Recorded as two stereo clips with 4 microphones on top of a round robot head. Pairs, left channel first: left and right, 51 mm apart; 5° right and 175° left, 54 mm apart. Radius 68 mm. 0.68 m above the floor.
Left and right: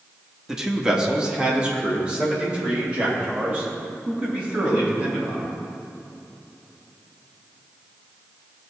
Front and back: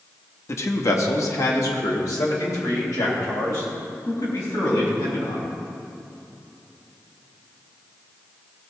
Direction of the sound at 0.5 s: 10° right.